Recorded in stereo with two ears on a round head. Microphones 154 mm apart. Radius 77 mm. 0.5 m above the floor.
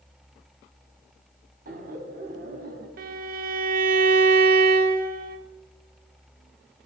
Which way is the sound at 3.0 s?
55° right (ahead or behind).